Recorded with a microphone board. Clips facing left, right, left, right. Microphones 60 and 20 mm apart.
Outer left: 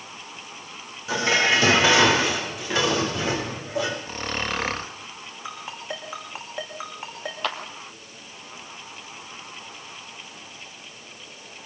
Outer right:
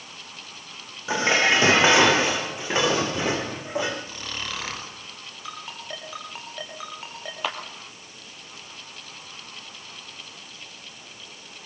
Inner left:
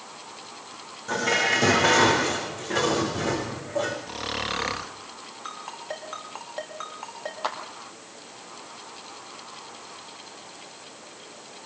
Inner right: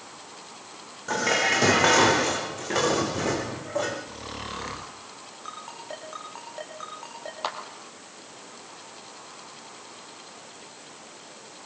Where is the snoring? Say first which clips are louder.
Outer left 6 dB, inner left 7 dB; 40° left (ahead or behind), 1.5 m.